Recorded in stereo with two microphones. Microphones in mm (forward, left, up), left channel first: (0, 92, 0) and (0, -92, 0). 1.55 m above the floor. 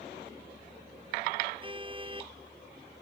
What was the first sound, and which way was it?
A car horn, 30° right (ahead or behind).